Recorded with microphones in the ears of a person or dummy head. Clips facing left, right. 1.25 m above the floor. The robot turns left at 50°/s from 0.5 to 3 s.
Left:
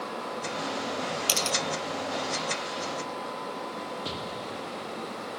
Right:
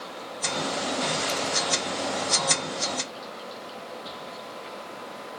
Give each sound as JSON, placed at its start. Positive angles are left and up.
{"t": 1.3, "sound": "a camera shutter", "side_deg": 80}
{"t": 4.0, "sound": "an explosion", "side_deg": 40}